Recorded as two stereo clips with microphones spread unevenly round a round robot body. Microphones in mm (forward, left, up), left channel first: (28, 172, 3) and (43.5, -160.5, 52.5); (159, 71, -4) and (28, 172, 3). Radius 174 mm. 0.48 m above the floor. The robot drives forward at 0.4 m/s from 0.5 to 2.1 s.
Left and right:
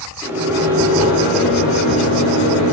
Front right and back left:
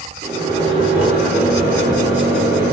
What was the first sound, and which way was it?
A microwave, straight behind.